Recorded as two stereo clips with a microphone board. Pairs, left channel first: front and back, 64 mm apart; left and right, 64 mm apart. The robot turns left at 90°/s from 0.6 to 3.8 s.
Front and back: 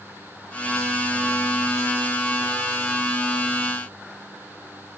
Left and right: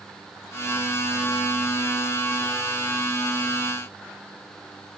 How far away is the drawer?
No drawer in this recording.